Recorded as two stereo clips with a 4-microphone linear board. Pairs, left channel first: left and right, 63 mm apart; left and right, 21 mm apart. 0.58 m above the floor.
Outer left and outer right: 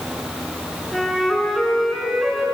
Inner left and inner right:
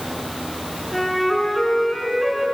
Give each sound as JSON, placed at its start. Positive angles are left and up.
{"t": 0.9, "sound": "a flute", "side_deg": 0, "distance_m": 5.0}